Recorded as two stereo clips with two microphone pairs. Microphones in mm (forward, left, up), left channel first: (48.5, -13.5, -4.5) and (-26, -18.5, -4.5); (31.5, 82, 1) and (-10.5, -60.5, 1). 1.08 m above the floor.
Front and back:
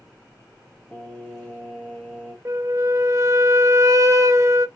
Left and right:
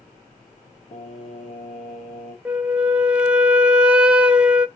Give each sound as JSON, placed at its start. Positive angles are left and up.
{"t": 0.9, "sound": "singing", "azimuth_deg": 70, "distance_m": 1.0}
{"t": 2.5, "sound": "a flute", "azimuth_deg": 170, "distance_m": 0.5}